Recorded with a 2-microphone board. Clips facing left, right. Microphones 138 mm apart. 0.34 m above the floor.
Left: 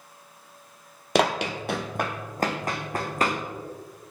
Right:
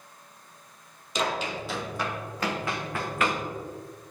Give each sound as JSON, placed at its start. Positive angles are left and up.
{"t": 1.1, "sound": "running footsteps", "side_deg": 70, "distance_m": 0.7}